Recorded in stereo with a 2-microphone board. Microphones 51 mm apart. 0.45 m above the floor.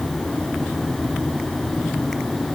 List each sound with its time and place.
Only background noise.